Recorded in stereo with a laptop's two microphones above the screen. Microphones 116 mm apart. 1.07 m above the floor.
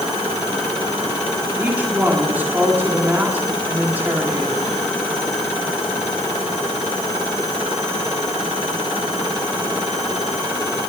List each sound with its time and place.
1.6 s a woman speaking: 15° right (ahead or behind), 3.5 m